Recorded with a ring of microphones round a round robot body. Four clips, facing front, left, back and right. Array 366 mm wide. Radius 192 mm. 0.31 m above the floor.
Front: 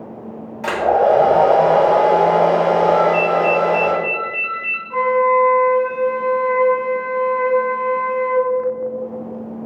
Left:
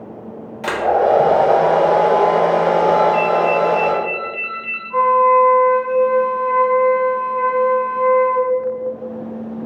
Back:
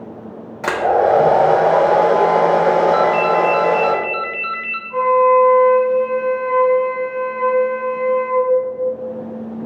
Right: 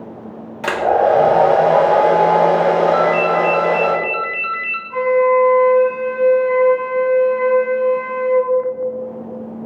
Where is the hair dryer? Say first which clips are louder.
Right 1 dB, even; 155° right, 1.2 m.